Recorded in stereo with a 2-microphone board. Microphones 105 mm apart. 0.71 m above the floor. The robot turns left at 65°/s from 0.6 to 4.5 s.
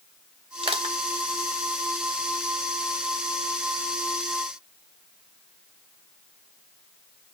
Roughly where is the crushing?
Right.